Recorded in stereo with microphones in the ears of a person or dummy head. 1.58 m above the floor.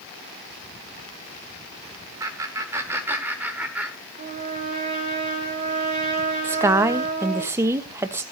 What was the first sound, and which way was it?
Laughter, 20° right (ahead or behind).